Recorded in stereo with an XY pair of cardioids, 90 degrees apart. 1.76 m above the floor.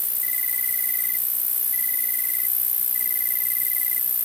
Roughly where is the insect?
Ahead.